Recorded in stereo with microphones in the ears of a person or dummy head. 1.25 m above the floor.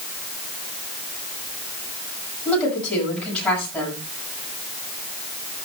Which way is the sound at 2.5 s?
10° left (ahead or behind).